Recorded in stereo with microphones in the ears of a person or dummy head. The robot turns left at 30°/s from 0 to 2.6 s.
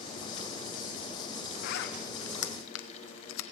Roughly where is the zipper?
Left.